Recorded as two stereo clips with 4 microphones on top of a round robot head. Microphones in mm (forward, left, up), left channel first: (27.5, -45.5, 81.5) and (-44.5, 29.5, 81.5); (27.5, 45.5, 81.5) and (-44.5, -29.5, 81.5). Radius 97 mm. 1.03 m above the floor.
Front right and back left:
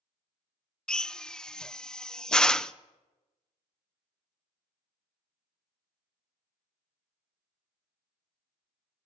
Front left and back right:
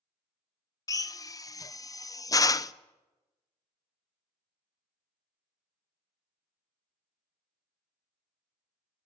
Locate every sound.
0.9 s a drill: 30° left, 0.7 m